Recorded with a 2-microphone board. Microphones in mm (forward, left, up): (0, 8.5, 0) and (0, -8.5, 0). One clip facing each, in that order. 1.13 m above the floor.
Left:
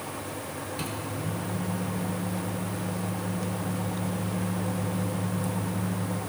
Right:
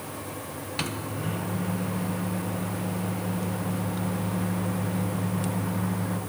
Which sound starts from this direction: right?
A microwave, at 0.8 s.